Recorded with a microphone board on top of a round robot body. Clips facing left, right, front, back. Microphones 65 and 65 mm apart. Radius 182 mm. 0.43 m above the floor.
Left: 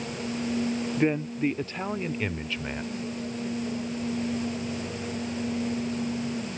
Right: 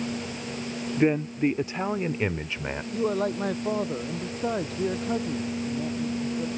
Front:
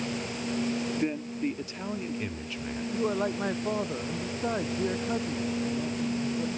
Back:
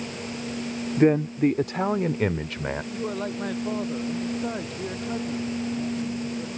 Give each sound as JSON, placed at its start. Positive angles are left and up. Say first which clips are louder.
{"t": 1.0, "sound": "a man speaking", "louder": "right 4 dB, back 10 dB", "azimuth_deg": -175}
{"t": 2.9, "sound": "a man speaking", "louder": "right 8 dB, front 1 dB", "azimuth_deg": -80}